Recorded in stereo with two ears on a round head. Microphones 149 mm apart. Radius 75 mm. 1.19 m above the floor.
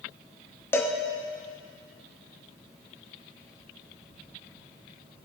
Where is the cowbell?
15° left (ahead or behind), 0.9 m.